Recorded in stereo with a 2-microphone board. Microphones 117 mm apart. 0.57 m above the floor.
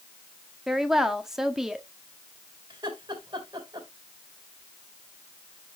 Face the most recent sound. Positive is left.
turn(degrees=-35)  # may be behind; listen again after turning